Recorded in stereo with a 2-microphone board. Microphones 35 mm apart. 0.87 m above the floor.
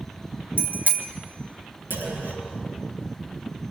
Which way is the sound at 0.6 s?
65° right (ahead or behind).